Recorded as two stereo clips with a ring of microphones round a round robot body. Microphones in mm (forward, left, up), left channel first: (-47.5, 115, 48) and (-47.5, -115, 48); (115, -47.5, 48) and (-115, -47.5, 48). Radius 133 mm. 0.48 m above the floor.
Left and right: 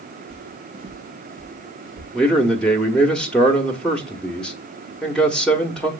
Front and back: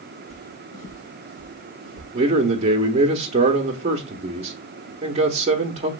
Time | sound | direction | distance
0.3 | footsteps | 55° right | 0.7 m
2.1 | a man speaking | 175° left | 0.8 m